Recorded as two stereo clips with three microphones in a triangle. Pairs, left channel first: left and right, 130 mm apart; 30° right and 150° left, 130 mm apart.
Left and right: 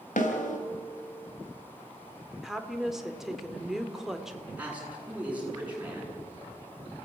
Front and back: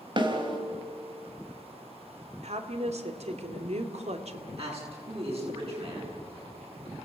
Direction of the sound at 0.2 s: 100° left.